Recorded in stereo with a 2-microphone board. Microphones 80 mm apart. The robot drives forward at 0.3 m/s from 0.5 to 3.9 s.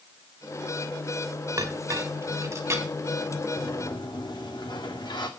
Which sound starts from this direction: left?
A sliding door, at 3.6 s.